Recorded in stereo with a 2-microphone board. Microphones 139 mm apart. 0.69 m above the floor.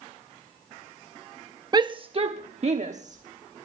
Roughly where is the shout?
Right.